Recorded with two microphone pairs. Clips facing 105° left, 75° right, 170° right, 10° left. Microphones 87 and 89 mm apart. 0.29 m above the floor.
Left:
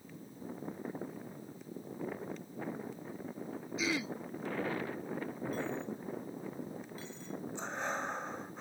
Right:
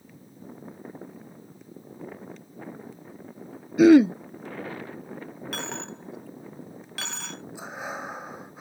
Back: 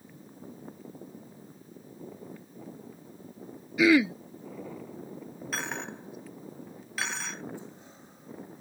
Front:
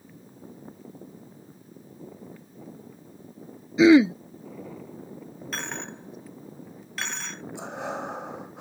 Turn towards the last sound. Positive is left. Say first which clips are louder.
# right 2 dB, front 13 dB
turn(degrees=10)